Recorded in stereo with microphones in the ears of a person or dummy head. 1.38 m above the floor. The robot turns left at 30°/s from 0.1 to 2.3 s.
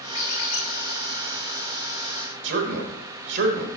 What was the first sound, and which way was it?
A squeak, 45° left (ahead or behind).